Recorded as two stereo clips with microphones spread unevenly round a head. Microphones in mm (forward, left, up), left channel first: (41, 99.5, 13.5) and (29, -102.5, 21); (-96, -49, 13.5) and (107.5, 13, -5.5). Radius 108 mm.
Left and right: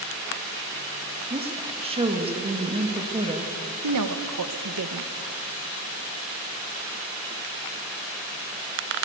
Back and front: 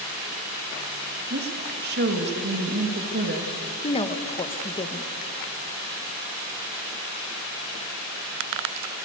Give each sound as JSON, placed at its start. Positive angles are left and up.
{"t": 1.3, "sound": "a woman speaking", "azimuth_deg": -30, "distance_m": 2.5}
{"t": 3.8, "sound": "a woman speaking", "azimuth_deg": -95, "distance_m": 1.5}